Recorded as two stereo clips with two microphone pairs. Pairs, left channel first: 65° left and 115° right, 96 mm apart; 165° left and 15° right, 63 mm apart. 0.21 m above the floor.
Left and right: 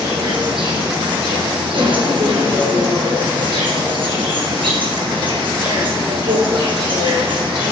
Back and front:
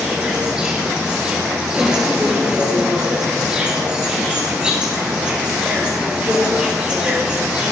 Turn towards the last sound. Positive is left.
turn(degrees=-90)